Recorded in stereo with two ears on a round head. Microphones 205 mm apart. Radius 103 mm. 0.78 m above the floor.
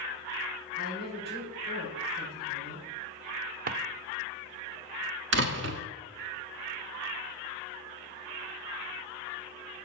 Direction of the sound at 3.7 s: 40° right (ahead or behind).